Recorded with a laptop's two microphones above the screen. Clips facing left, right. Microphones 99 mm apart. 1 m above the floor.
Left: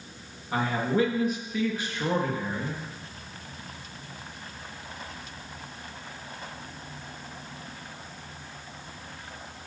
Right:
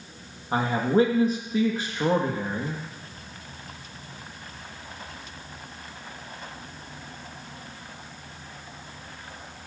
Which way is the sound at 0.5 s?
35° right (ahead or behind).